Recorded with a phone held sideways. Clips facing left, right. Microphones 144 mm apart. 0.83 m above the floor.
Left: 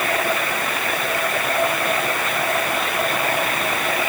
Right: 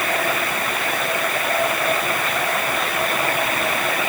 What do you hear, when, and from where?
Only background noise.